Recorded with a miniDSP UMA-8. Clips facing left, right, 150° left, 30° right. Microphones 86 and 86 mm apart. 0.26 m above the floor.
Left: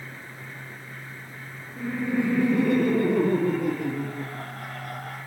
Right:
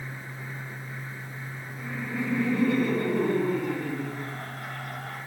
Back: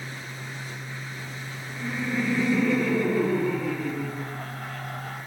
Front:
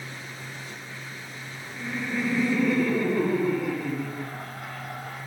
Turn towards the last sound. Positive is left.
turn(degrees=50)